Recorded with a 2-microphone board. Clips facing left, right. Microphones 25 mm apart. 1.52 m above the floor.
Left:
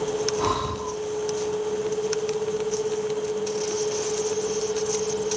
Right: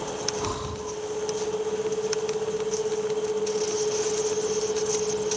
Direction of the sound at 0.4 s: 45° left (ahead or behind).